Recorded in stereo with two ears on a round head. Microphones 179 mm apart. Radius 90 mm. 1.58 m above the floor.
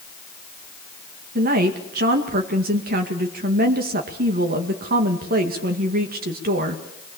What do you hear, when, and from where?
1.4 s a woman speaking: 50° right (ahead or behind), 2 m